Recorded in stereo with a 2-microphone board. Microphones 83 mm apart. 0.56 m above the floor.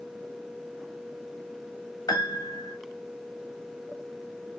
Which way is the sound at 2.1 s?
50° left (ahead or behind).